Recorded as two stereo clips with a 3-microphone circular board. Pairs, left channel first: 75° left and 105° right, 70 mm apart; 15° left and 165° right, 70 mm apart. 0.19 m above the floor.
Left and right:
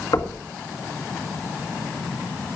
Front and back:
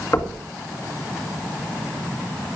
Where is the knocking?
65° left, 1.6 m.